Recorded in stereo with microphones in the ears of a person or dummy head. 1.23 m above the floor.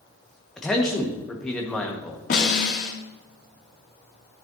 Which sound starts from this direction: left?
A snare drum, at 2.3 s.